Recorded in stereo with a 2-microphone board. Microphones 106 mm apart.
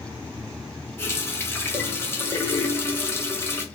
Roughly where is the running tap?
Left.